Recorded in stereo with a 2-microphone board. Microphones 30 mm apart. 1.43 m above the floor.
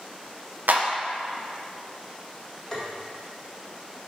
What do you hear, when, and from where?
0.7 s a clap: 85° right, 0.8 m
2.7 s tapping: 15° left (ahead or behind), 1.9 m